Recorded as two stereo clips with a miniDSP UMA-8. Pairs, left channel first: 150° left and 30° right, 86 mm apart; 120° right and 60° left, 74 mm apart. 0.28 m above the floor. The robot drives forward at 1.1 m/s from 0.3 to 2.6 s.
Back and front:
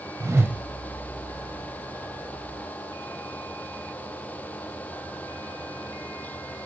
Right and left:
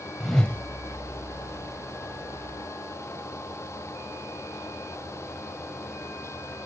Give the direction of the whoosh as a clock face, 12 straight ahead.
1 o'clock.